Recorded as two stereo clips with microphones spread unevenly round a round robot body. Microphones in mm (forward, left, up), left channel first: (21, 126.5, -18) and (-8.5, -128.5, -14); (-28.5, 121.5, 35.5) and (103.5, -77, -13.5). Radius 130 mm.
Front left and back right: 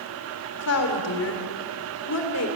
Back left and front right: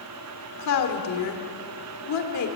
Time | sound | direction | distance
0.6 | a woman speaking | 115° left | 3 m